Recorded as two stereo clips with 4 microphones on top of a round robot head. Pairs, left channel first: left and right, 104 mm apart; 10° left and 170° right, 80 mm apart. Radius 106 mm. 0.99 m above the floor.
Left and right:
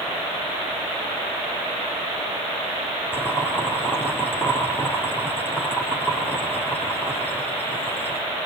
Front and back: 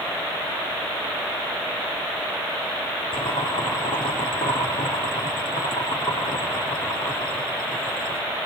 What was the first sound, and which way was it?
Boiling, 20° left.